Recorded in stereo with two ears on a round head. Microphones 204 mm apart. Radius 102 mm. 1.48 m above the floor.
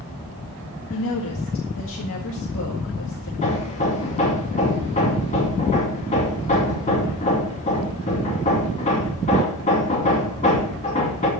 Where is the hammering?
30° left (ahead or behind), 2.5 m.